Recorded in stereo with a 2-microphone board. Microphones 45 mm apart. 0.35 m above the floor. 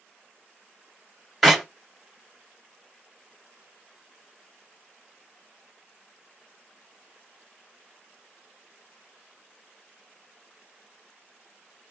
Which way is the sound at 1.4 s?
Centre (ahead or behind).